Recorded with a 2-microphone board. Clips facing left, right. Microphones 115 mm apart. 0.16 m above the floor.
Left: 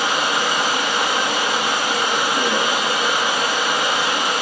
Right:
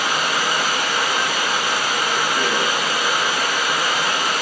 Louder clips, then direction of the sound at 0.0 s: Left 1 dB; 25° left (ahead or behind).